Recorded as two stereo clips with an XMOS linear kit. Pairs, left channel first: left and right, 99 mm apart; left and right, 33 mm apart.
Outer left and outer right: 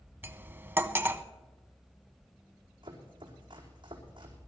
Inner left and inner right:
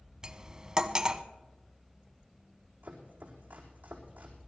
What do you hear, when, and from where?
0.2 s cutlery clinking: 20° right (ahead or behind), 0.7 m
2.8 s chopping: 50° right (ahead or behind), 4.5 m